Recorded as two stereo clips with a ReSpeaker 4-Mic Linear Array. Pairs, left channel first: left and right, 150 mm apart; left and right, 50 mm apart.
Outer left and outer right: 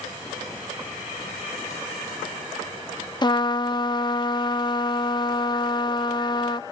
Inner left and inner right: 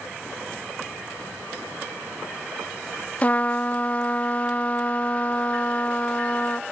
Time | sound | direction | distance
3.2 | a trumpet | 30° left (ahead or behind) | ?